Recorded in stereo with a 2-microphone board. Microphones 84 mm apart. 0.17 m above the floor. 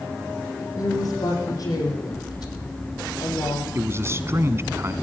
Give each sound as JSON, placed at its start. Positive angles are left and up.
{"t": 0.8, "sound": "a woman speaking", "side_deg": 45, "distance_m": 7.0}
{"t": 3.8, "sound": "a man speaking", "side_deg": -35, "distance_m": 1.2}